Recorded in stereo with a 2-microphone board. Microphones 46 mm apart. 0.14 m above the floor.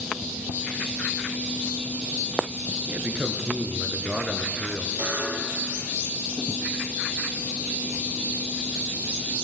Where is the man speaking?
40° right (ahead or behind), 2.5 m; by 4.9 s 10° right (ahead or behind), 1.9 m.